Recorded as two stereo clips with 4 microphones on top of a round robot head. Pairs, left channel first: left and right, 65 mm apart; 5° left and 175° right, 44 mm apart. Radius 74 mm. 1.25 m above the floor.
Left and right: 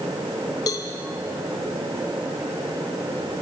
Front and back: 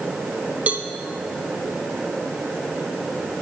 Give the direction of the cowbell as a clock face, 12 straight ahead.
8 o'clock.